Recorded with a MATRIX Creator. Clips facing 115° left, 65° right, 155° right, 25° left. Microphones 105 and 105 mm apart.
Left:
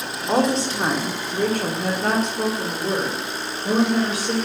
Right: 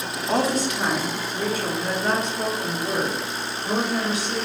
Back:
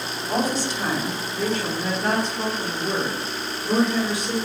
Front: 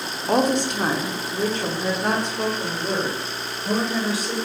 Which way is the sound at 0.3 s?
35° left.